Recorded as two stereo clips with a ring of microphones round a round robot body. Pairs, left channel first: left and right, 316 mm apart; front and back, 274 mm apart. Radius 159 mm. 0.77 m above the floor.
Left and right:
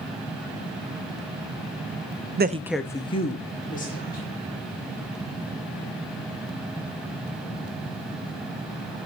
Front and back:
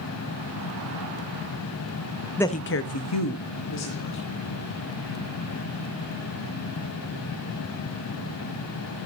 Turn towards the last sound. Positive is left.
turn(degrees=25)